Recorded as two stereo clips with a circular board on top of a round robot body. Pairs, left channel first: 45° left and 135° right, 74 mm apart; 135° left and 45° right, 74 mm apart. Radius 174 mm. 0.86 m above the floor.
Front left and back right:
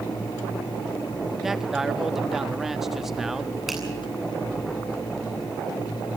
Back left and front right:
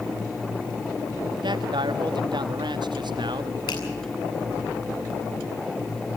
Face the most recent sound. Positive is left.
turn(degrees=140)